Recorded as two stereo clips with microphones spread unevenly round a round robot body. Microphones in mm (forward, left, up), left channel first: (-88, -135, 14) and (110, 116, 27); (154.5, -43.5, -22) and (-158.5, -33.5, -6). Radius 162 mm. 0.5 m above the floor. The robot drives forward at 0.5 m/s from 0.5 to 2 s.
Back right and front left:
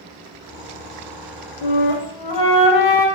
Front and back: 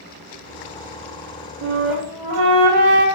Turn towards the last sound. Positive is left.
turn(degrees=-165)